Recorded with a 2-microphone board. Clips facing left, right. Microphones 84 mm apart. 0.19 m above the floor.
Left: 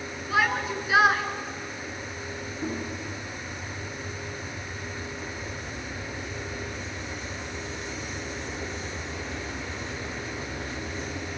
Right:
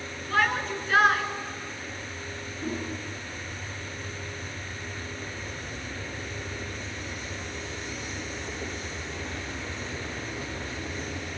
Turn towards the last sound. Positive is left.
turn(degrees=25)  # may be behind; listen again after turning